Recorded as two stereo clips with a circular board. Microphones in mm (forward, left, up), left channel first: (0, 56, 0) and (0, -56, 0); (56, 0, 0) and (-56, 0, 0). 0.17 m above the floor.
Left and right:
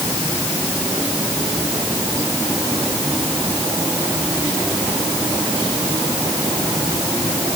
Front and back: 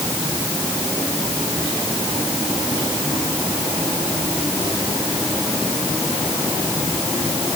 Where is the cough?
No cough in this recording.